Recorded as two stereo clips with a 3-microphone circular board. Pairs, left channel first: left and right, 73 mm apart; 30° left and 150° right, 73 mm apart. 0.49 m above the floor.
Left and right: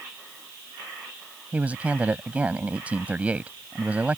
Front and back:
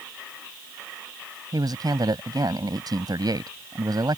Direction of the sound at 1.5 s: 160° right.